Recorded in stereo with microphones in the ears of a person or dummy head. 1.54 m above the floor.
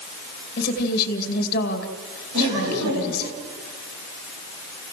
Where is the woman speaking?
55° left (ahead or behind), 2 m.